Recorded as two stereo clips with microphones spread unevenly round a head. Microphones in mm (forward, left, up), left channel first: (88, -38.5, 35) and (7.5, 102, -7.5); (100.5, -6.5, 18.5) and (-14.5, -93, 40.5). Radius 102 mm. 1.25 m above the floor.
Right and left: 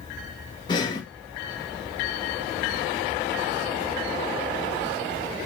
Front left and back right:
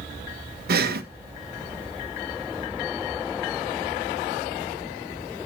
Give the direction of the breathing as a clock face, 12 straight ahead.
4 o'clock.